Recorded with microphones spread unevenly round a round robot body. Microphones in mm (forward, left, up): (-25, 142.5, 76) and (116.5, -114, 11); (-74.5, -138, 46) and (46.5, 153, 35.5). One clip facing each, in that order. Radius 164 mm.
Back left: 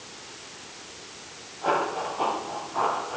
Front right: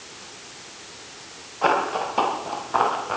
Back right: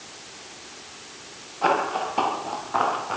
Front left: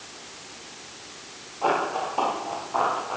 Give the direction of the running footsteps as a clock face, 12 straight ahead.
2 o'clock.